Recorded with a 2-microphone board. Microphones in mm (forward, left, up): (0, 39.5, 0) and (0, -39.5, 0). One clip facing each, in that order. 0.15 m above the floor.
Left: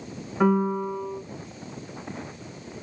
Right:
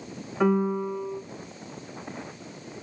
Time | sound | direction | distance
0.4 | a piano | 10° left (ahead or behind) | 0.9 m